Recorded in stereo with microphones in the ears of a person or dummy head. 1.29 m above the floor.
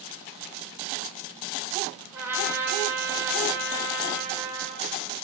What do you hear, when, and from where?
2.1 s a trumpet: 10° right (ahead or behind), 0.9 m